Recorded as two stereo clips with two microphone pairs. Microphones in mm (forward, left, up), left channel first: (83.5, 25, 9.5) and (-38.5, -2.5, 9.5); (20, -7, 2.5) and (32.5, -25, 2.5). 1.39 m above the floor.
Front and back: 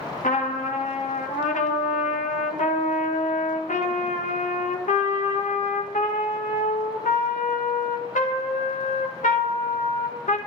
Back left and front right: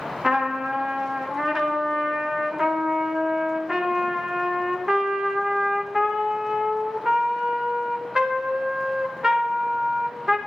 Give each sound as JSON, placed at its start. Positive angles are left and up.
{"t": 0.2, "sound": "a trumpet", "azimuth_deg": 5, "distance_m": 1.4}